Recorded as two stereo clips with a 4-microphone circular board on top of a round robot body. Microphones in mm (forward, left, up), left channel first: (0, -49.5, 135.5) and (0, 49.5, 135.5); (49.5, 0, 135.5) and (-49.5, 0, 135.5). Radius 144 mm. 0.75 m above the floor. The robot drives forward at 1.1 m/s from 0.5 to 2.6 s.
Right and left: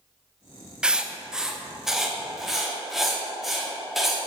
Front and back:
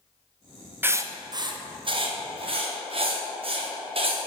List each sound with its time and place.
0.8 s writing: 155° left, 1.1 m; by 4.3 s 175° left, 2.5 m